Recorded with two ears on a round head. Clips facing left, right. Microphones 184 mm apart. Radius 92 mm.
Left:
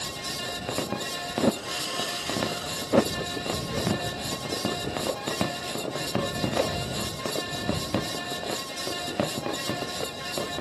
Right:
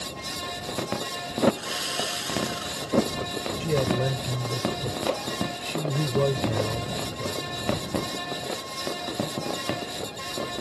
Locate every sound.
1.5 s sawing: 20° right (ahead or behind)
3.6 s a man speaking: 80° right